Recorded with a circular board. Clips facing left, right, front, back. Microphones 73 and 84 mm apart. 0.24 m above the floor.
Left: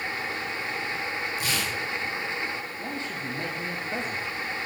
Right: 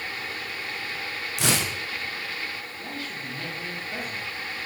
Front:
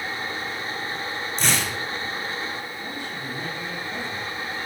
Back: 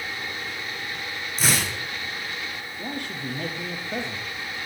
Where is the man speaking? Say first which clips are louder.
Left 2 dB, back 1 dB; 155° left, 7.5 m.